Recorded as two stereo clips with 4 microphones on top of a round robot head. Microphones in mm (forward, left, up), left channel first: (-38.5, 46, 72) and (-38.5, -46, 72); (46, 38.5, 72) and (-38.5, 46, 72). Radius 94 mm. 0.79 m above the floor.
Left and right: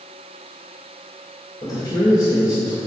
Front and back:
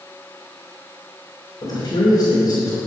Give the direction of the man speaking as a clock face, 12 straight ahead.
11 o'clock.